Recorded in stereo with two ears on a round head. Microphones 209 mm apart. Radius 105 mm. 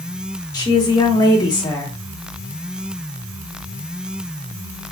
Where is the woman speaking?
15° left (ahead or behind), 0.8 m.